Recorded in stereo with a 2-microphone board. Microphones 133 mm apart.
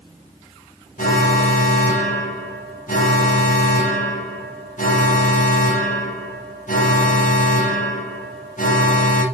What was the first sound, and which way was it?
An alarm, 80° left.